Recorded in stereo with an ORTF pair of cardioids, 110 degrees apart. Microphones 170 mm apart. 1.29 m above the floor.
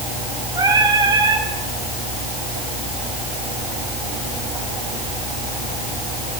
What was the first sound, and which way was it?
Singing, 20° right.